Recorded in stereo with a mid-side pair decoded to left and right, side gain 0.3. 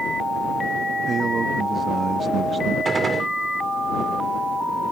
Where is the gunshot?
55° right.